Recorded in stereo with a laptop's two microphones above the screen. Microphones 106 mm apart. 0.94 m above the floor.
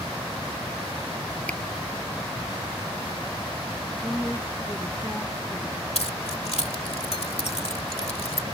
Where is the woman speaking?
5° left (ahead or behind).